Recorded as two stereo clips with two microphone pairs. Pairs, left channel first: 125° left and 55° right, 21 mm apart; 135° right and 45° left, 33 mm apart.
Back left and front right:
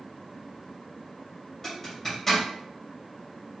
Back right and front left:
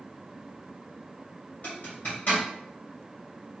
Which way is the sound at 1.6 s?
165° right.